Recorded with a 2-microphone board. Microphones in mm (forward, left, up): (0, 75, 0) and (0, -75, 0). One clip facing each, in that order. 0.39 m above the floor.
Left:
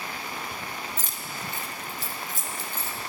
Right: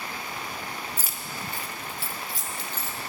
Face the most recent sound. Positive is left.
turn(degrees=50)  # may be behind; listen again after turning